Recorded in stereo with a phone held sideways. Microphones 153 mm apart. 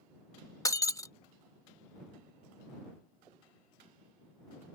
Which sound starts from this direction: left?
Breaking glass, at 0.7 s.